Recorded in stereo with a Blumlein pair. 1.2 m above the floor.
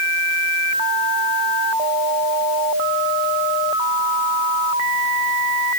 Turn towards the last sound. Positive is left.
No sound to turn to.